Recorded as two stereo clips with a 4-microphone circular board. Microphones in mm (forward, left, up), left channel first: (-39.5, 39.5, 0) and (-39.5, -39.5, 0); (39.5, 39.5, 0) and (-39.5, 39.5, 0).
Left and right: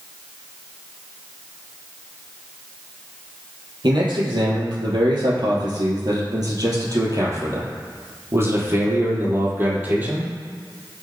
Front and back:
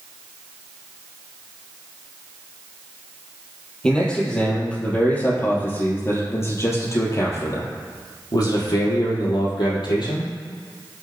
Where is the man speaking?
80° right, 4 m; by 10.3 s 20° right, 4 m.